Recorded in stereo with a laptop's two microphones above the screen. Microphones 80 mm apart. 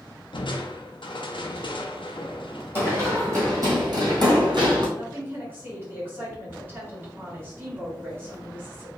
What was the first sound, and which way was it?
Crushing, 75° left (ahead or behind).